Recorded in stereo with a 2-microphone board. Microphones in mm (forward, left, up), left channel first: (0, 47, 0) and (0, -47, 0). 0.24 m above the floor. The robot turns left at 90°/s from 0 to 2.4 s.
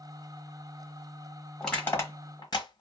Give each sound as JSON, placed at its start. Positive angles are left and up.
{"t": 1.6, "sound": "crushing", "side_deg": 0, "distance_m": 1.5}